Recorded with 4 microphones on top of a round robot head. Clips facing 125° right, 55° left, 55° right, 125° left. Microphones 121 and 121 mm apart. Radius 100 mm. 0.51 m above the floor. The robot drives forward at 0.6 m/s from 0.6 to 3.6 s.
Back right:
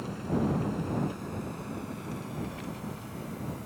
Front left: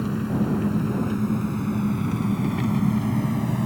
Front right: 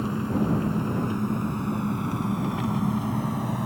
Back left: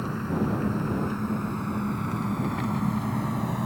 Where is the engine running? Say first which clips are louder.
Front left 6 dB, front right 2 dB; 20° left; by 3.7 s 35° left.